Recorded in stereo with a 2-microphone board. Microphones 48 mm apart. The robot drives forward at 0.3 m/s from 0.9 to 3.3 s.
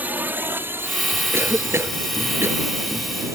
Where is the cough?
60° right (ahead or behind).